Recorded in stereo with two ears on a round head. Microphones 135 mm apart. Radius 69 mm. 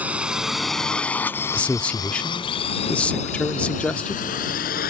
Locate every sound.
0.0 s a drone: 10° right (ahead or behind); by 4.9 s 70° left (ahead or behind)
1.5 s a man speaking: 10° left (ahead or behind)